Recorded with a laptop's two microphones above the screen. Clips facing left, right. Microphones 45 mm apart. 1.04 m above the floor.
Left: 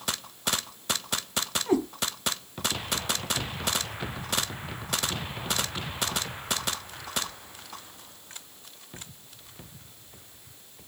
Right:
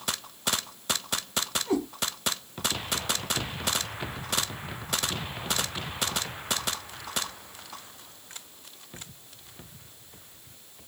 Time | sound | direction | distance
1.7 | a cat meowing | 35° left (ahead or behind) | 1.6 m